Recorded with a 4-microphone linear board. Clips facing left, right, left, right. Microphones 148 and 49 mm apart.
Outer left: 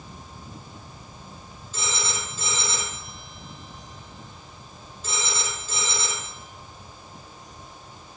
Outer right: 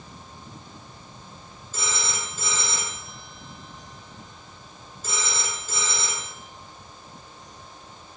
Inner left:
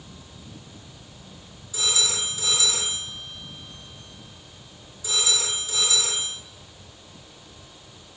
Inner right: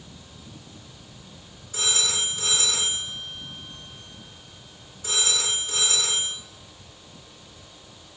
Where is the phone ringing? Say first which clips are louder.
Even, even; 50° right (ahead or behind), 4.5 m.